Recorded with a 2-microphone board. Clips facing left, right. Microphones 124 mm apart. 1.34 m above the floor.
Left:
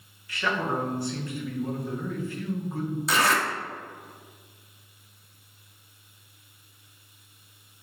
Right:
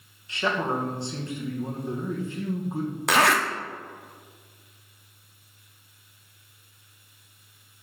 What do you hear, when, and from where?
0.3 s a man speaking: 25° right (ahead or behind), 1.2 m
3.1 s a zipper: 65° right (ahead or behind), 0.7 m